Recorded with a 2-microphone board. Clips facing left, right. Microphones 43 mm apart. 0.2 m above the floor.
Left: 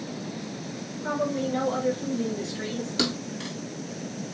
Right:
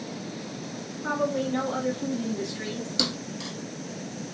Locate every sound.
1.0 s a woman speaking: 35° right (ahead or behind), 2 m; by 2.9 s 20° left (ahead or behind), 1.1 m
3.0 s a thud: 30° left (ahead or behind), 0.7 m